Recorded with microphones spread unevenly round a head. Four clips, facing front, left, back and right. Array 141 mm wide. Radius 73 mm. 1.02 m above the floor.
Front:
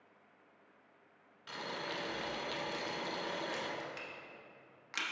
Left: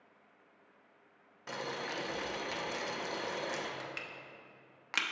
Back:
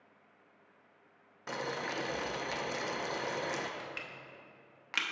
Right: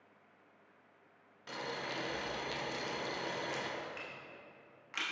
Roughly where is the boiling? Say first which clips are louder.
Left 2 dB, back 5 dB; behind.